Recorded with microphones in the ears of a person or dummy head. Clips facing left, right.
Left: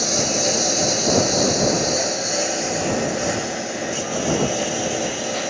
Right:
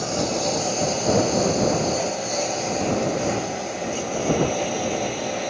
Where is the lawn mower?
25° left (ahead or behind); by 5.5 s 15° left (ahead or behind).